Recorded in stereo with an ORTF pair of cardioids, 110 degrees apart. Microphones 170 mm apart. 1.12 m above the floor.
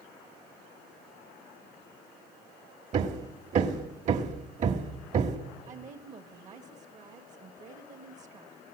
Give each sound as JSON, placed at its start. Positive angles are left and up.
{"t": 2.9, "sound": "hammering", "azimuth_deg": -45, "distance_m": 1.3}
{"t": 5.7, "sound": "a woman speaking", "azimuth_deg": -45, "distance_m": 1.3}